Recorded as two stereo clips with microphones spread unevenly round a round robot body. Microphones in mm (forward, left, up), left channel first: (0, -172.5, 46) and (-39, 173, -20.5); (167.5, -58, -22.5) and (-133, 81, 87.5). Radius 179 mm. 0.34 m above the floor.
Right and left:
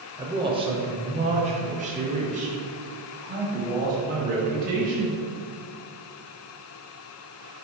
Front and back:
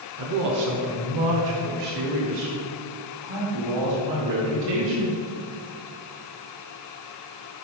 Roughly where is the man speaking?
Behind left.